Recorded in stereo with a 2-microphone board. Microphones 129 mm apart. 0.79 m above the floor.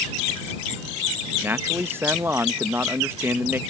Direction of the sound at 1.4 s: 20° right (ahead or behind).